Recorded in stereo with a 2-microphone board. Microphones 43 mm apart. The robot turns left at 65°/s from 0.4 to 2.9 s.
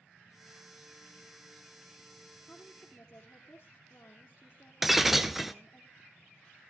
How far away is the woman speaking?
About 2.5 m.